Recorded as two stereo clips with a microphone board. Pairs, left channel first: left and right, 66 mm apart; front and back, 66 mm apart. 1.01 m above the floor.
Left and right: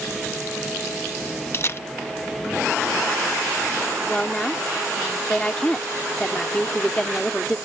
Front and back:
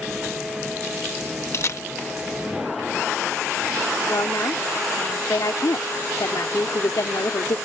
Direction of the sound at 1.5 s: 40° left.